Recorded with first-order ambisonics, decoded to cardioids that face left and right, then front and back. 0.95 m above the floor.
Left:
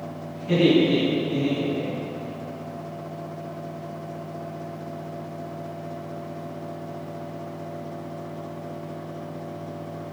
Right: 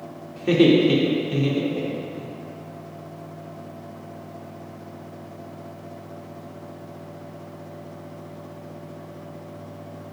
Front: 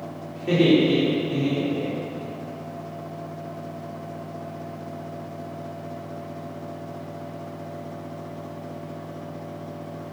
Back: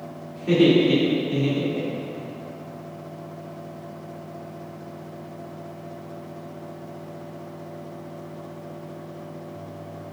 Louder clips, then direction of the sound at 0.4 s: Right 2 dB, back 1 dB; 80° right.